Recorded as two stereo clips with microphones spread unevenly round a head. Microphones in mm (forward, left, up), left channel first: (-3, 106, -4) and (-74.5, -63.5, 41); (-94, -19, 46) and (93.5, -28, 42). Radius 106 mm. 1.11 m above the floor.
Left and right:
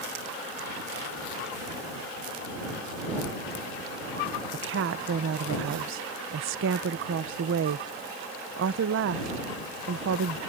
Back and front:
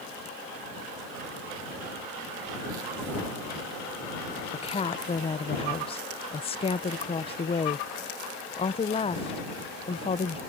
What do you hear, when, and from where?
4.5 s a woman speaking: 125° right